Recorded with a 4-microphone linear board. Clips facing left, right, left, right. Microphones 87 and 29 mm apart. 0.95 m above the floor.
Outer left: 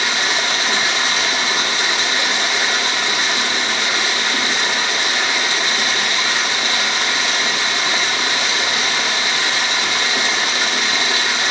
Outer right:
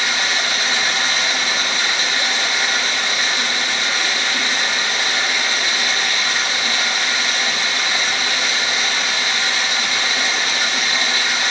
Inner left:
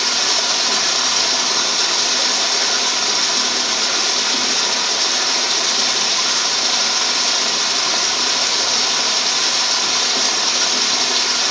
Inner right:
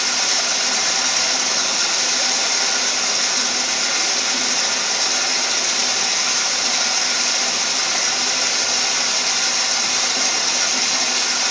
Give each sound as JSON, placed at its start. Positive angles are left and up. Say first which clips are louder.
{"t": 0.0, "sound": "running water", "louder": "outer left 1 dB, inner left 2 dB", "side_deg": 65, "distance_m": 2.5}